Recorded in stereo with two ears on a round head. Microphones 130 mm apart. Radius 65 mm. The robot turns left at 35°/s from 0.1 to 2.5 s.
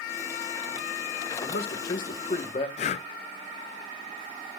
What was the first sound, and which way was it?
A man speaking, 75° left.